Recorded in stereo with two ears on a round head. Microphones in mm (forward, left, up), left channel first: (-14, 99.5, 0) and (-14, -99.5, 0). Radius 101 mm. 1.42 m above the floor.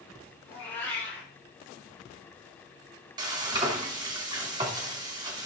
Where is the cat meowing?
10° left (ahead or behind), 6 m.